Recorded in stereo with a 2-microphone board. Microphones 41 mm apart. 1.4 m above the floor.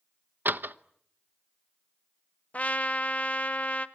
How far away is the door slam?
About 0.8 m.